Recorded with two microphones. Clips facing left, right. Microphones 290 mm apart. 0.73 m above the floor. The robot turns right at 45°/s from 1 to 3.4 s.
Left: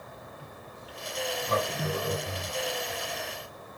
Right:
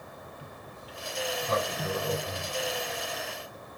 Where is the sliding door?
55° left (ahead or behind), 1.9 m; by 3.7 s 5° right (ahead or behind), 1.9 m.